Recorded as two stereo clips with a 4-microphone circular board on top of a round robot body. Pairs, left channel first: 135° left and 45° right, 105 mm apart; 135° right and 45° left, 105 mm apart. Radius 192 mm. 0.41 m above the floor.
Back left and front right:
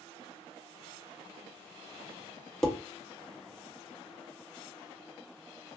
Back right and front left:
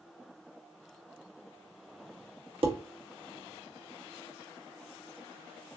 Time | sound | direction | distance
2.6 | dishes clattering | 45° left | 1.1 m